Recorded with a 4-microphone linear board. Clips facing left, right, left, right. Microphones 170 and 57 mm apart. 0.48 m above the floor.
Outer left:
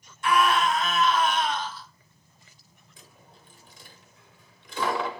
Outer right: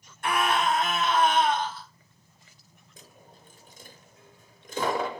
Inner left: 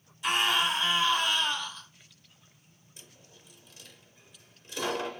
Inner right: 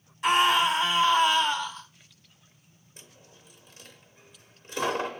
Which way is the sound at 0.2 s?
55° right (ahead or behind).